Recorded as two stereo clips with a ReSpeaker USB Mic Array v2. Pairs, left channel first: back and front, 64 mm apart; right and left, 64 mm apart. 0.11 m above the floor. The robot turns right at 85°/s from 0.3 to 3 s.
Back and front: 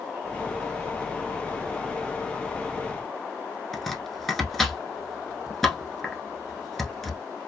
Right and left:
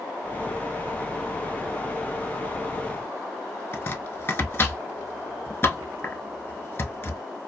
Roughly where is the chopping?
Right.